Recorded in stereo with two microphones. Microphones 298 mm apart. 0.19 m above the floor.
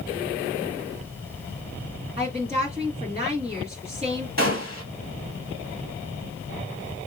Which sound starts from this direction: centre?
A woman speaking, at 2.2 s.